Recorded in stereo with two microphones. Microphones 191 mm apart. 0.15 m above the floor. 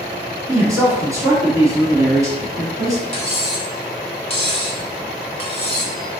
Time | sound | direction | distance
0.5 | a man speaking | 20° right (ahead or behind) | 1.2 m
3.1 | cutlery clinking | 35° left (ahead or behind) | 0.8 m